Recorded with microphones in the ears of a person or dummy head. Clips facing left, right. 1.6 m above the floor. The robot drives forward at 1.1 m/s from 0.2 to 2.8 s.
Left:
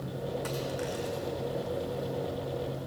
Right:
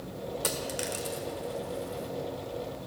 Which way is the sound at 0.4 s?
50° right (ahead or behind).